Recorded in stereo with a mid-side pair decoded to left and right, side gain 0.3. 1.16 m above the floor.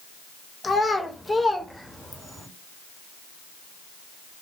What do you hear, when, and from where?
0.6 s a child speaking: 45° left, 1.0 m; by 2.5 s 10° right, 1.3 m